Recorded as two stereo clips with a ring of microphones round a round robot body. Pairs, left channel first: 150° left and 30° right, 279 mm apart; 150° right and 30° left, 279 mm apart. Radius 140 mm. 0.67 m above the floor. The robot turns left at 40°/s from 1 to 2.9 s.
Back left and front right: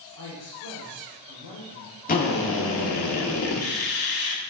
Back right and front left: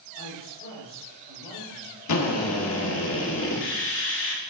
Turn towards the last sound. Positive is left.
turn(degrees=175)